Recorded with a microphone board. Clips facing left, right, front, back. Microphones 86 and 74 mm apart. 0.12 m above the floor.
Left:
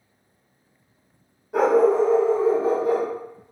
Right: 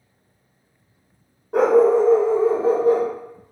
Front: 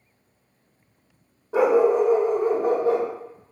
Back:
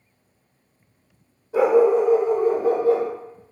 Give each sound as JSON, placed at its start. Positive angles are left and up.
{"t": 1.5, "sound": "a dog barking", "azimuth_deg": -35, "distance_m": 1.6}